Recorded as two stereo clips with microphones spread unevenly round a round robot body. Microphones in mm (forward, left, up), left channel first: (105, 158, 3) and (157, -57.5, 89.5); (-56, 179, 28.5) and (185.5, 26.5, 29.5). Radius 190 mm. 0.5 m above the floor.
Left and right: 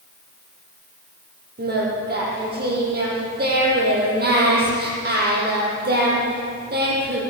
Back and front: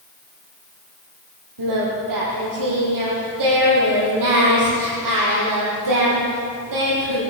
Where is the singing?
35° right, 9.5 m.